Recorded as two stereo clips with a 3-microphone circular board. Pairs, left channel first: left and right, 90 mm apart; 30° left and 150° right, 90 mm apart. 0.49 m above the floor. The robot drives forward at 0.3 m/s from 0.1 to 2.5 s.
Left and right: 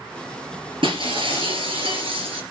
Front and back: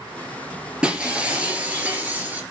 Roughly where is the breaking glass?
Right.